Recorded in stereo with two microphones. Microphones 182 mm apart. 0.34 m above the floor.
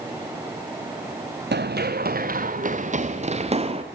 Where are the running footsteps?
70° right (ahead or behind), 1.6 m; by 3.8 s 35° right (ahead or behind), 3 m.